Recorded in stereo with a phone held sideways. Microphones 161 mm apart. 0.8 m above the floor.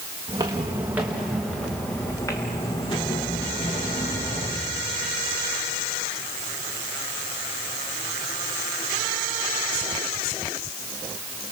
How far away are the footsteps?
About 4 m.